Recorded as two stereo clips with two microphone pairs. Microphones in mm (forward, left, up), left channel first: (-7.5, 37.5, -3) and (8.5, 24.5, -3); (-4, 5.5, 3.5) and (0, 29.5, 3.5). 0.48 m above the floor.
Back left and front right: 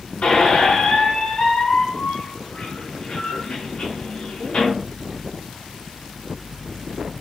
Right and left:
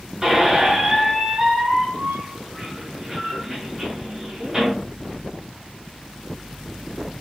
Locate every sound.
0.2 s a squeak: 145° left, 0.9 m